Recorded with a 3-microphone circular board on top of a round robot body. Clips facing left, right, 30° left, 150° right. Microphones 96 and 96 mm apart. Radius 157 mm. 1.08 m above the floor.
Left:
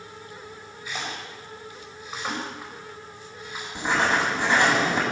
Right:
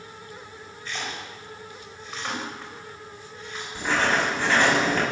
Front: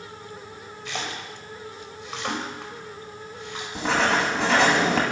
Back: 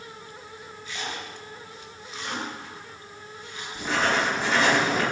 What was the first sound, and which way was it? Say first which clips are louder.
A splash: even, front 2 dB; 10° left.